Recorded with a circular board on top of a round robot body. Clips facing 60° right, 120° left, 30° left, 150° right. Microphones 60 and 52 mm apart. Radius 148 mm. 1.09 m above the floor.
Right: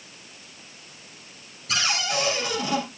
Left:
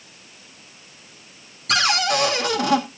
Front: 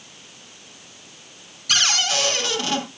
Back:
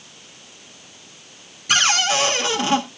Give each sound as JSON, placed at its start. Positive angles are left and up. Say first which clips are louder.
{"t": 1.7, "sound": "a cupboard door", "louder": "left 6 dB, back 3 dB", "azimuth_deg": 145, "distance_m": 2.0}